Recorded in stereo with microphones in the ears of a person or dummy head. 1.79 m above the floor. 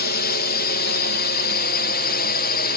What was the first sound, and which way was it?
A drone, 50° left (ahead or behind).